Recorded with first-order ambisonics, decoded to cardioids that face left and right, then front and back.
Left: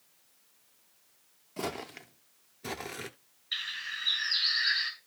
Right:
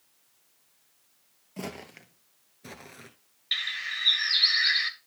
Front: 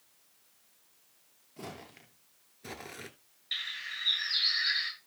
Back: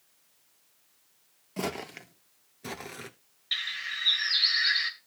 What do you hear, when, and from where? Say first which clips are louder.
1.6 s footsteps: left 3 dB, back 11 dB; straight behind, 1.1 m; by 3.1 s 95° left, 0.8 m
3.5 s a bird: right 5 dB, back 4 dB; 105° right, 3 m